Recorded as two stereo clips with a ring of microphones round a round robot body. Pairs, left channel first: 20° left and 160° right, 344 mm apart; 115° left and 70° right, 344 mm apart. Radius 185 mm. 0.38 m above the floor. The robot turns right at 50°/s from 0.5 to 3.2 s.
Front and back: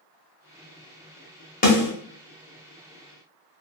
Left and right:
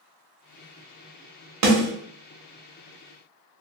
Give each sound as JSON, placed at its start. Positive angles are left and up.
{"t": 1.6, "sound": "a snare drum", "azimuth_deg": -40, "distance_m": 1.2}